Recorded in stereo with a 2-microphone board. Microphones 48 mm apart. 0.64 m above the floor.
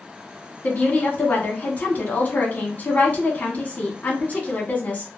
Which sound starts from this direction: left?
A woman speaking, at 0.6 s.